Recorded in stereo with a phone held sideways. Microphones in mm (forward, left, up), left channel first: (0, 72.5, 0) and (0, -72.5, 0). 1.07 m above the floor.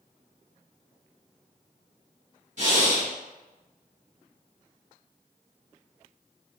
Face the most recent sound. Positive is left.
turn(degrees=-60)  # may be behind; listen again after turning